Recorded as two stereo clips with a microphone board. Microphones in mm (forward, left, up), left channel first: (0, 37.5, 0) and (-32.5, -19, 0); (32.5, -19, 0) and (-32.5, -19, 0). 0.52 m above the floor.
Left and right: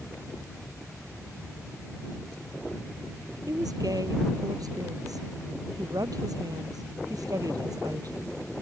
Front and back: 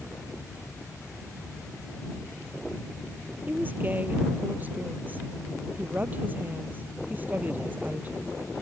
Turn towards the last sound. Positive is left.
turn(degrees=-120)